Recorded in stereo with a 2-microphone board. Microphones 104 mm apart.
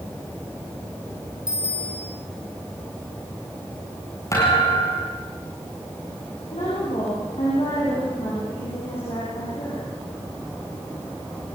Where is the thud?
30° left (ahead or behind), 7.5 m.